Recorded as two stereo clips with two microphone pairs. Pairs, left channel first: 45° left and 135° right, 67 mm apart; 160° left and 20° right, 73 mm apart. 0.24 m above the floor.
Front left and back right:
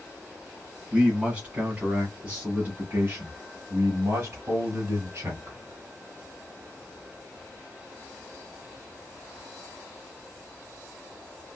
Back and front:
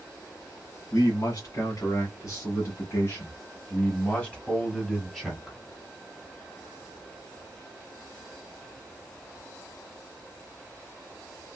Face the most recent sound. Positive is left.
turn(degrees=-105)